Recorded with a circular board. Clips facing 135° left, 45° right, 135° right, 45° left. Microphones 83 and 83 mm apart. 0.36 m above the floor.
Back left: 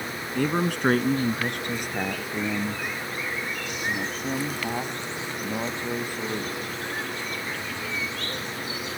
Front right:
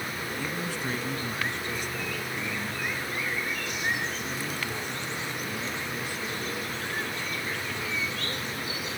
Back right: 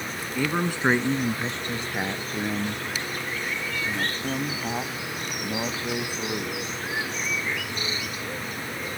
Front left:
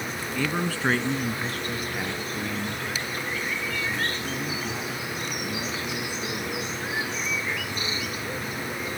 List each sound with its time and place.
0.3 s a man speaking: 145° left; by 6.5 s 175° left